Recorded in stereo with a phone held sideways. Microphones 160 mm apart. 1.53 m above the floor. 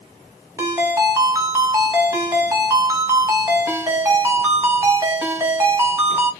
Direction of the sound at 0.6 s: 15° right (ahead or behind).